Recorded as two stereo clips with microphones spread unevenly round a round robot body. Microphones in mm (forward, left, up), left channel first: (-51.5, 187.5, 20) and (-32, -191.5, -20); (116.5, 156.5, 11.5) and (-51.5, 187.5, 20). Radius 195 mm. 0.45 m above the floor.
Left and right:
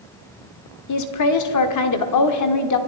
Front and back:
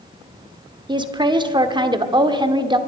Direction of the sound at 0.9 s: 115° left.